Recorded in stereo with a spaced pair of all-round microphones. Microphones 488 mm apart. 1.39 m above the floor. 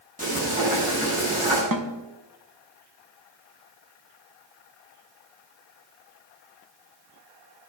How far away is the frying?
About 9.5 m.